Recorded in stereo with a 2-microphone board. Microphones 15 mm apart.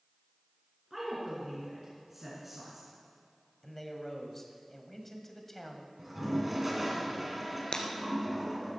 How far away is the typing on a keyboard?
No typing on a keyboard in this recording.